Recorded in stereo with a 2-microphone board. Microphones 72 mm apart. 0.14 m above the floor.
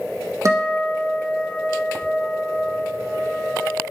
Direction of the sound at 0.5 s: 45° right (ahead or behind).